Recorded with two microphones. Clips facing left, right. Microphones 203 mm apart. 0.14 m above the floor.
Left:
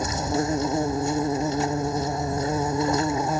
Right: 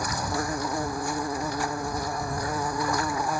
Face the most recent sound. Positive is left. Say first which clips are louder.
# left 5 dB
turn(degrees=25)  # may be behind; listen again after turning